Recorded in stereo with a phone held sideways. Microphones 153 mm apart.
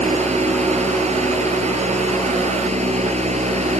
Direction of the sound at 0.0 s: 45° right (ahead or behind).